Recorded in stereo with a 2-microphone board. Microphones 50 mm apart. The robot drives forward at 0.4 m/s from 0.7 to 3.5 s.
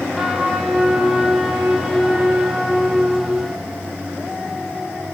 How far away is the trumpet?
About 7 m.